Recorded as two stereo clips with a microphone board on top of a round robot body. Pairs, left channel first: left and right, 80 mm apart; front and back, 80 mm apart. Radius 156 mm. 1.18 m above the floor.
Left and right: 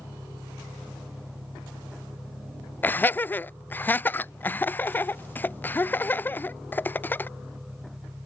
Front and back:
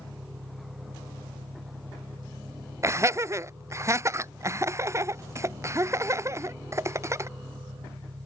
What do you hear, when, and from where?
0.0 s an engine running: 165° right
2.8 s laughter: 145° left